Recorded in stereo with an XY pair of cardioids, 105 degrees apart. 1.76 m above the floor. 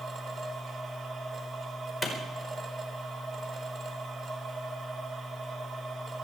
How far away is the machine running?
About 3 m.